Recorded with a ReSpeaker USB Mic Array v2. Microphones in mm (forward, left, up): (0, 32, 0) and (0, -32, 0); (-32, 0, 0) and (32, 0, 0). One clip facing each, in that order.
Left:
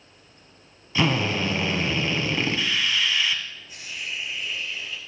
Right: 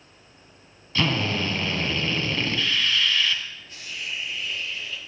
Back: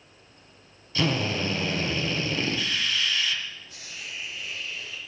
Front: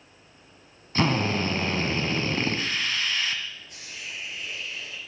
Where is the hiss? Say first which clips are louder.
Even, front 1 dB; 10° left, 4 m.